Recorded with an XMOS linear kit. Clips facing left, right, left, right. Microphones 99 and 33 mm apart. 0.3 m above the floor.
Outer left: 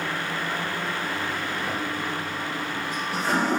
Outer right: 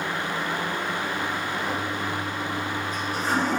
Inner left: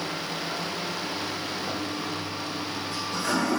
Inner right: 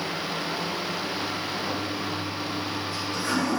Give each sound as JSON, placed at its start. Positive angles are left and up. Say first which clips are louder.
{"t": 1.7, "sound": "a toilet flushing", "louder": "outer right 1 dB, inner right 1 dB", "side_deg": 85, "distance_m": 5.0}